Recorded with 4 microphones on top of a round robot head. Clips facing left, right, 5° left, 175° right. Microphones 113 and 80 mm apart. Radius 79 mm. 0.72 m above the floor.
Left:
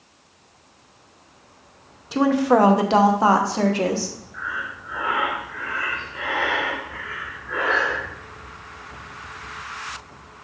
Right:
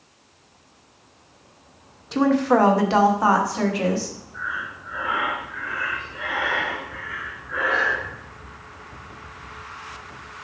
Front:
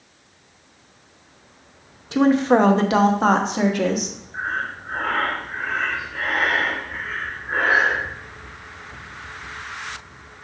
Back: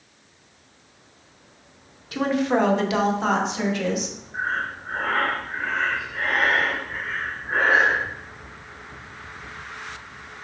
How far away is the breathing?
About 2 m.